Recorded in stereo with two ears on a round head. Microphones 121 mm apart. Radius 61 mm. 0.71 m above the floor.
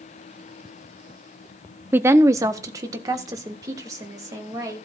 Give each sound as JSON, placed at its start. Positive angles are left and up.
{"t": 1.9, "sound": "a woman speaking", "side_deg": -15, "distance_m": 0.6}